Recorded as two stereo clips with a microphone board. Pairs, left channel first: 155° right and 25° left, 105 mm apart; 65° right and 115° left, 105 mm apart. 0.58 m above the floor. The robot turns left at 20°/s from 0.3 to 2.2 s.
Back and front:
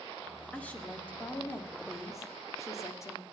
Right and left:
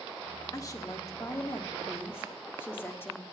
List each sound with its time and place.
0.5 s a woman speaking: 90° right, 1.4 m; by 3.2 s 120° right, 1.4 m